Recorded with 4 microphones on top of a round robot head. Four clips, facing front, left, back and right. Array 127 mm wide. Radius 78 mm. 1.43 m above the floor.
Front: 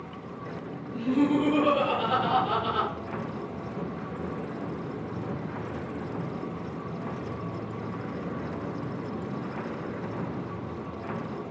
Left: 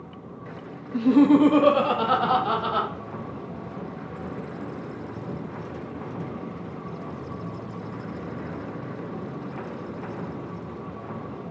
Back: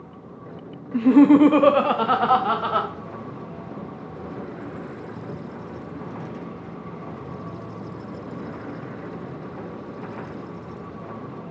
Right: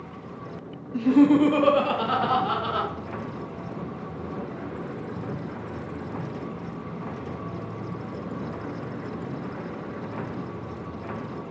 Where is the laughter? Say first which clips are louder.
Left 1 dB, back 11 dB; 160° left, 0.9 m; by 2.9 s 165° left, 2.5 m.